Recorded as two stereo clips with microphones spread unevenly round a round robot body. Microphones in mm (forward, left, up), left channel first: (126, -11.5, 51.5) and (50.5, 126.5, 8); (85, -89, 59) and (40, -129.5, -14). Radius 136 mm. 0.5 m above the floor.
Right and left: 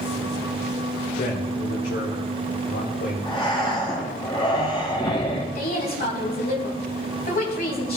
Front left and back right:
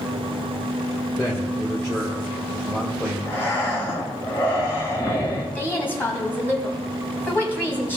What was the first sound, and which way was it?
A man speaking, 45° right.